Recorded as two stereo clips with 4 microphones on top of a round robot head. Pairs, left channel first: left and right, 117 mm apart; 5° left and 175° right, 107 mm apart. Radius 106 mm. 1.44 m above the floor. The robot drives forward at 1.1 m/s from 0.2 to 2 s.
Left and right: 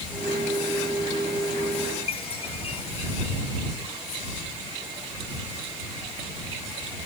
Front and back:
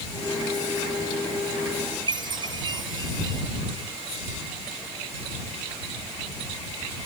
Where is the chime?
140° left.